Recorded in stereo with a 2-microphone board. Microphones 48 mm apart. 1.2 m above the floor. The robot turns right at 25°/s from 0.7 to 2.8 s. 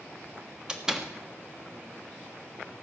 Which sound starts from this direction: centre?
A door slam, at 0.7 s.